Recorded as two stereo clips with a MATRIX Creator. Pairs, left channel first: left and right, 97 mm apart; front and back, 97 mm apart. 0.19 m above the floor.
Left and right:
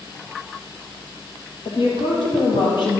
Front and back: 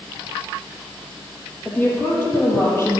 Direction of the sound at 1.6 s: 75° left.